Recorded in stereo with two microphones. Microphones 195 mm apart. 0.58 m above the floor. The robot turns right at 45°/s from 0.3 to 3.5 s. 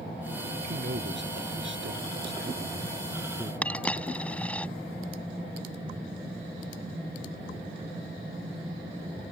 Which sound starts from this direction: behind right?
A man speaking, at 0.6 s.